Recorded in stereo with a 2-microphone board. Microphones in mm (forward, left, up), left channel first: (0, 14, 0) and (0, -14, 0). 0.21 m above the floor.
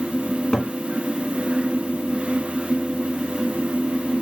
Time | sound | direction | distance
0.3 | a cupboard door | 25° left (ahead or behind) | 0.7 m